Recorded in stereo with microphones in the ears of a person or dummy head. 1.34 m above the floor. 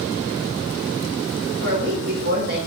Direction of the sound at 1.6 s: 70° right (ahead or behind).